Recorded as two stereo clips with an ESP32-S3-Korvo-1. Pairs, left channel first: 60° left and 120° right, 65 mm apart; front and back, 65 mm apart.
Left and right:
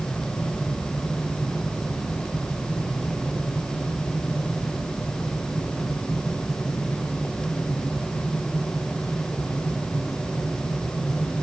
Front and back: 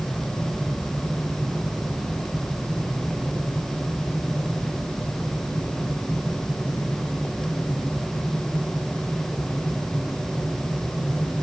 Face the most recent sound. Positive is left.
No sound to turn to.